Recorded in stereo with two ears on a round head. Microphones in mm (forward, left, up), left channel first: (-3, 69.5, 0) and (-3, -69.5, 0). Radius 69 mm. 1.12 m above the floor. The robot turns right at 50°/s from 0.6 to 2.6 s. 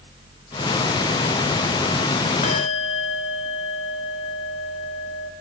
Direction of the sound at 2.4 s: 50° left (ahead or behind).